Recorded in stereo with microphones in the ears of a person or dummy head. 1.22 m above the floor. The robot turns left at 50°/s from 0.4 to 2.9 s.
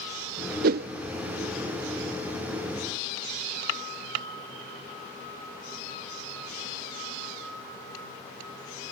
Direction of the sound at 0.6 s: 55° right (ahead or behind).